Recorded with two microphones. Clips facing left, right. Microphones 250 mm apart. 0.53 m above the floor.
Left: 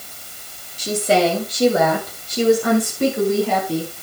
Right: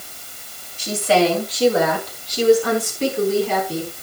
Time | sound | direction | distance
0.8 | a woman speaking | 40° left (ahead or behind) | 3.5 m